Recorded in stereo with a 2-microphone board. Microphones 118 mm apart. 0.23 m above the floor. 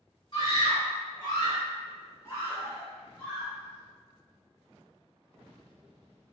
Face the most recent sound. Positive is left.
turn(degrees=10)  # may be behind; listen again after turning